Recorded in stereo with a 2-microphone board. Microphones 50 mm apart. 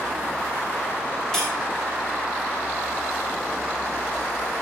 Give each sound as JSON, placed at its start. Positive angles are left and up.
{"t": 1.3, "sound": "cutlery clinking", "side_deg": 10, "distance_m": 2.5}